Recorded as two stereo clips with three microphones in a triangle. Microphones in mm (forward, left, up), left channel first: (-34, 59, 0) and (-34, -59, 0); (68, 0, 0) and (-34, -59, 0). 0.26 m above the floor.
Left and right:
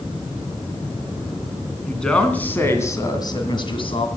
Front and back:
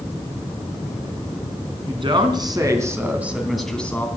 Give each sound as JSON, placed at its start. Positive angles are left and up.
{"t": 1.9, "sound": "a woman speaking", "azimuth_deg": 175, "distance_m": 3.0}